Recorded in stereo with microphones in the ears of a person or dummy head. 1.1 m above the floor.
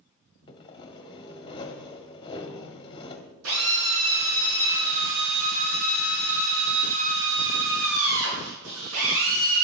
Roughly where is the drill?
Right.